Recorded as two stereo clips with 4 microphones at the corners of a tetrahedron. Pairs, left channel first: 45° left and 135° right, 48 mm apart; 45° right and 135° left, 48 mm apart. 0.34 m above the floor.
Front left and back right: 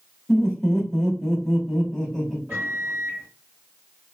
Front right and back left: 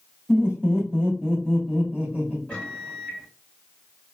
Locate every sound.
0.3 s laughter: 115° left, 1.3 m
2.5 s a microwave: 110° right, 1.4 m